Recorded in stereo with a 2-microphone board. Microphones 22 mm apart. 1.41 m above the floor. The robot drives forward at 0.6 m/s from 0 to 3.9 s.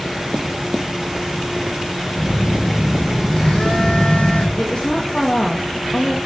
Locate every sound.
2.1 s a phone buzzing: 50° left (ahead or behind), 4.5 m; by 4.5 s 60° left (ahead or behind), 4 m
4.6 s a woman speaking: 45° left (ahead or behind), 1.9 m